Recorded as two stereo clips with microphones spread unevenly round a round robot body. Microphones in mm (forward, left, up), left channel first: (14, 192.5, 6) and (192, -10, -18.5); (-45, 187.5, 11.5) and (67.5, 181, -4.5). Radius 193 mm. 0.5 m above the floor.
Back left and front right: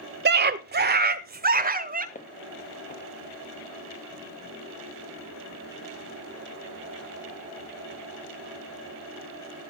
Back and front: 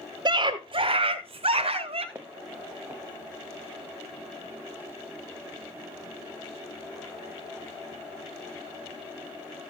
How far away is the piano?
I don't hear a piano.